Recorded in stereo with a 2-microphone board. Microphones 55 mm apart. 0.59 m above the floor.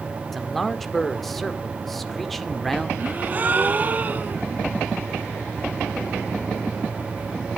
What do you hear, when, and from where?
0.3 s a man speaking: 5° left (ahead or behind), 1.7 m
3.0 s a gasp: 35° right (ahead or behind), 2.5 m